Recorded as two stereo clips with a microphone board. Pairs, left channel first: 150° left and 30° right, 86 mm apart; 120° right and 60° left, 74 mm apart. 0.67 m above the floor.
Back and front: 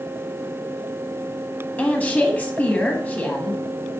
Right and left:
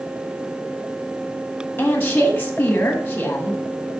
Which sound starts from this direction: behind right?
A woman speaking, at 1.8 s.